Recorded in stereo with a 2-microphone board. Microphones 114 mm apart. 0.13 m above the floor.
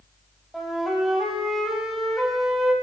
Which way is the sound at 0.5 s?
Centre (ahead or behind).